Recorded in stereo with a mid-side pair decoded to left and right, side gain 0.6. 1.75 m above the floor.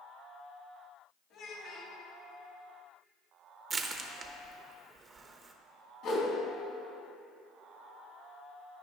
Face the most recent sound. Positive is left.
turn(degrees=60)